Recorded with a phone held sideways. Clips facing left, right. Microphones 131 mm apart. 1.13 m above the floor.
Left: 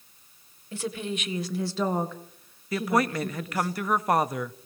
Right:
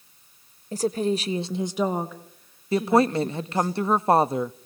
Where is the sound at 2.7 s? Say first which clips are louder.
Right 5 dB; 30° right (ahead or behind), 0.5 m.